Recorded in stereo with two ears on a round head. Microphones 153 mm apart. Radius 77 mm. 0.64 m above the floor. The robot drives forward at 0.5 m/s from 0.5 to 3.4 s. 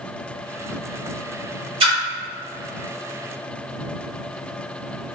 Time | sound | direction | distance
1.8 | a splash | 35° right (ahead or behind) | 1.3 m